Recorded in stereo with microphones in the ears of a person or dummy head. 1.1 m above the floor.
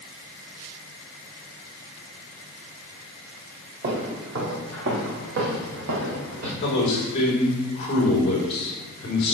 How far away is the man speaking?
About 4 m.